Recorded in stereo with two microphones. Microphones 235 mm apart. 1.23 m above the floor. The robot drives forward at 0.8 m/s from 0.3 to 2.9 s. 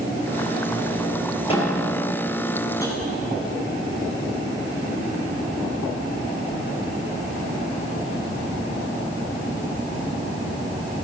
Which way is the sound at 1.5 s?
25° left (ahead or behind).